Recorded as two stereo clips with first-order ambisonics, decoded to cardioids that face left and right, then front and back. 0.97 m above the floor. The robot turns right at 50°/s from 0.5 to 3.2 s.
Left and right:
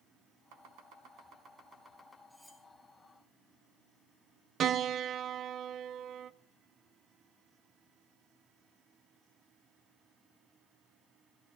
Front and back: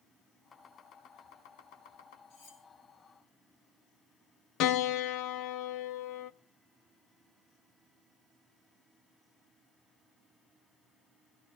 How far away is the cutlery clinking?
About 4 m.